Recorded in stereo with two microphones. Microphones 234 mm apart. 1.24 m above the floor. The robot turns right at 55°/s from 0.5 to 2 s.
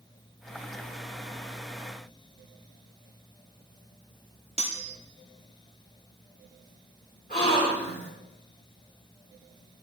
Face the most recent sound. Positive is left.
turn(degrees=40)  # may be behind; listen again after turning